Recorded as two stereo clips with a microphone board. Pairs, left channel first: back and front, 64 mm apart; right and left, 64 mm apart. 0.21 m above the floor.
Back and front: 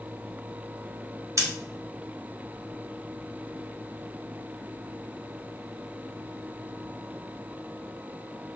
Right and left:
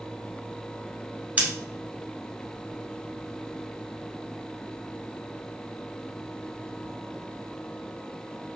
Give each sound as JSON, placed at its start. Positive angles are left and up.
{"t": 1.4, "sound": "scissors", "azimuth_deg": 25, "distance_m": 1.3}